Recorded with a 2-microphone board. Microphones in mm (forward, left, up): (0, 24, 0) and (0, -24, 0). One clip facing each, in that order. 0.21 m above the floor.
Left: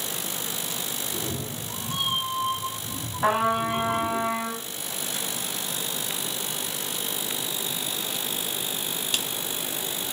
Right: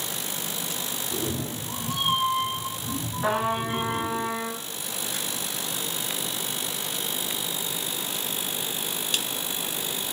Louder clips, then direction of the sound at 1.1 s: Right 5 dB; 75° right (ahead or behind).